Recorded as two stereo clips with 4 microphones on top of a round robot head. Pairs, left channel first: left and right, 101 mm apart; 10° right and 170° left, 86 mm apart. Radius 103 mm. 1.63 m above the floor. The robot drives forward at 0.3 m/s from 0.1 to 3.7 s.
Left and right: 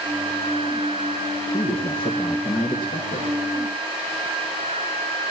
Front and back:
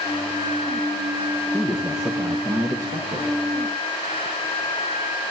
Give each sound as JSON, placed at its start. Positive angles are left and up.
{"t": 1.5, "sound": "a man speaking", "azimuth_deg": 95, "distance_m": 0.8}